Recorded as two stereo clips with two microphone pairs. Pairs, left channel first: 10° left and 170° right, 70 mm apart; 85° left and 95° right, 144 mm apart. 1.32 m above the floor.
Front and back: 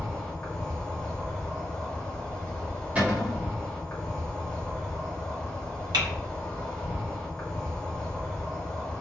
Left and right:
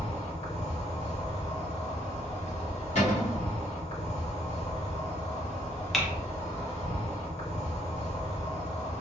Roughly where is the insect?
Left.